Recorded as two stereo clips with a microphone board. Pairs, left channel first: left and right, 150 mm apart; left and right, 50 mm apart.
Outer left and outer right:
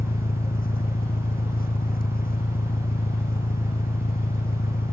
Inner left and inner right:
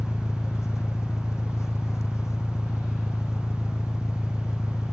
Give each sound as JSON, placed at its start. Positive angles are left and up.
{"t": 0.0, "sound": "an engine running", "side_deg": 75}